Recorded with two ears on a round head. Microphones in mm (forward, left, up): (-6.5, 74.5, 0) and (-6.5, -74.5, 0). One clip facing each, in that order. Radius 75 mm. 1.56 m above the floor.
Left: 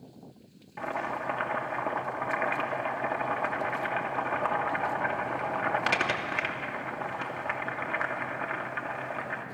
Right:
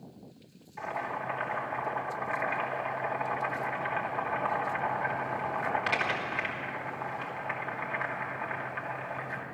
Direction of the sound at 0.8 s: 60° left (ahead or behind).